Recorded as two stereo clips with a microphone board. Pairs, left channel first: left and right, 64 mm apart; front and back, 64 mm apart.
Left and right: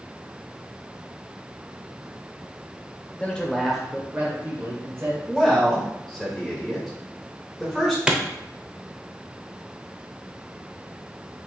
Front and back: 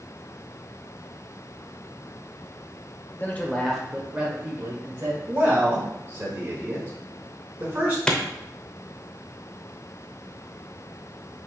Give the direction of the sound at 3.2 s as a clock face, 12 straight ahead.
11 o'clock.